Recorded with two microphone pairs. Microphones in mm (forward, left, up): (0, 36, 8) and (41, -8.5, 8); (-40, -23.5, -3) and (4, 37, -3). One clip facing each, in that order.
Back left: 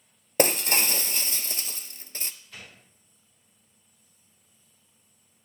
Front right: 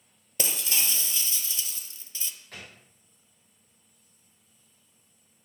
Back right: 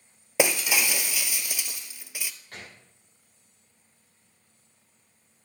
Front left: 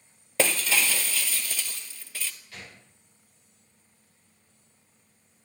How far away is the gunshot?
About 5.5 m.